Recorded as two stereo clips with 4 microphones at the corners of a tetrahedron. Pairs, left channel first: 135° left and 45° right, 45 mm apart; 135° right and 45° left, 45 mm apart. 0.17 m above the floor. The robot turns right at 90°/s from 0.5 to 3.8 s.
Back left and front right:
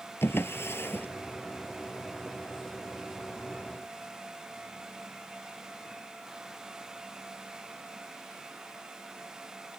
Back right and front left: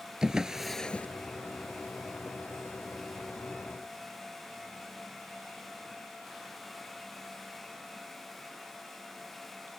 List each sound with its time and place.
0.2 s a drawer: 120° left; by 1.1 s 170° left